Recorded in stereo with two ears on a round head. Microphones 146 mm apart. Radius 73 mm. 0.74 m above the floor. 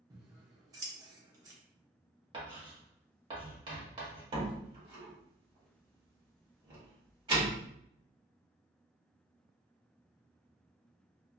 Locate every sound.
0.1 s scissors: 20° right (ahead or behind), 0.7 m
2.3 s writing: 30° right (ahead or behind), 1.2 m
4.3 s a door slam: 30° right (ahead or behind), 1.4 m